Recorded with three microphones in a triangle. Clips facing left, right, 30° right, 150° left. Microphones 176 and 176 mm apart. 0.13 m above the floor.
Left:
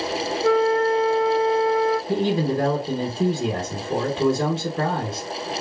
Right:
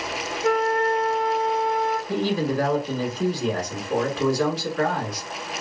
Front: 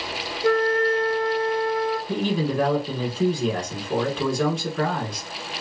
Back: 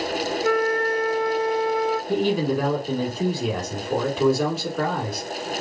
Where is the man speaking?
70° left, 1.1 m.